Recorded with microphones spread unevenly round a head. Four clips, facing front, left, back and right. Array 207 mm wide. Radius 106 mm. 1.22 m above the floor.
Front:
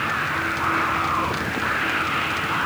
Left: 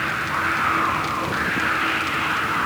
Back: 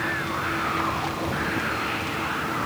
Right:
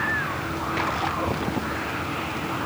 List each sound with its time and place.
Only background noise.